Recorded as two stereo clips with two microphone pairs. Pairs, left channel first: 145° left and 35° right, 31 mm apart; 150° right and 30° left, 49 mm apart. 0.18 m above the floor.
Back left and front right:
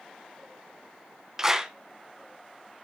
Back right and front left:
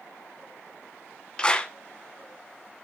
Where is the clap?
95° right, 1.1 m.